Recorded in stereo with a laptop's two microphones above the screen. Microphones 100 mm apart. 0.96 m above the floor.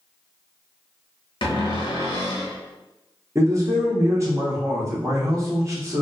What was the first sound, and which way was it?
A cupboard door, 60° left (ahead or behind).